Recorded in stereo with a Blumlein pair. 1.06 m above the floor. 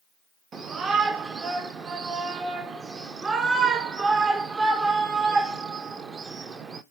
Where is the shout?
20° right, 0.6 m.